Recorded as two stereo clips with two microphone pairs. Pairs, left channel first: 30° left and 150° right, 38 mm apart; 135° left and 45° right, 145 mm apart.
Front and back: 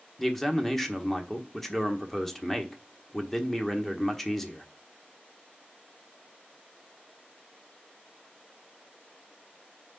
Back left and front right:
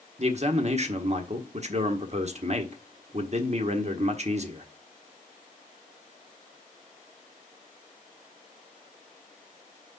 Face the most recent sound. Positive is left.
turn(degrees=-45)